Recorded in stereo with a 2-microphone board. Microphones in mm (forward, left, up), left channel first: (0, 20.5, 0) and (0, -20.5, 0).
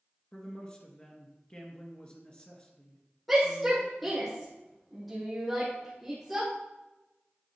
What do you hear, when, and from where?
0.3 s a man speaking: 30° left (ahead or behind), 1.6 m
3.3 s a shout: centre (ahead or behind), 5 m